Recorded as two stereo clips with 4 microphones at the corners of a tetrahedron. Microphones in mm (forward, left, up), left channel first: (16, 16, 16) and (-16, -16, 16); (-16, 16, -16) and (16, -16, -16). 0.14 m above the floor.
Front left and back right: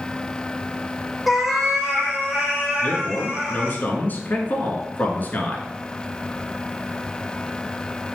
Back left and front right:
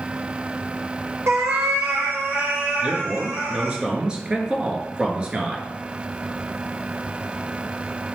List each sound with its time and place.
1.3 s a cat meowing: 45° right, 1.4 m; by 3.8 s 70° right, 5 m
2.8 s a man speaking: 15° left, 1.5 m